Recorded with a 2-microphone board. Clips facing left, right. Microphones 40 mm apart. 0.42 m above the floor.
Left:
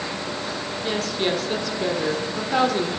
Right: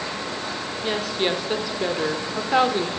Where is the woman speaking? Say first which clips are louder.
Right 1 dB; 15° right (ahead or behind), 1.1 m.